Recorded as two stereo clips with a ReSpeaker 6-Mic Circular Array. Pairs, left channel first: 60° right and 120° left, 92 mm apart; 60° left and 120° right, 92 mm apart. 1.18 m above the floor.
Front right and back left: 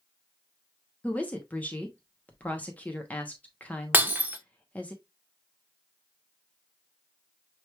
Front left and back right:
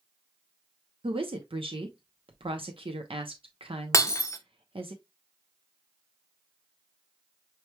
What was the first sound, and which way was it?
A woman speaking, 135° right.